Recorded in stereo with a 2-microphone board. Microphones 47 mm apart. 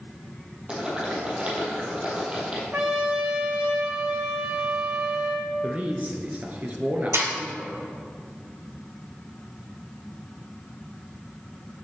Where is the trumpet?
40° right (ahead or behind), 1.4 m.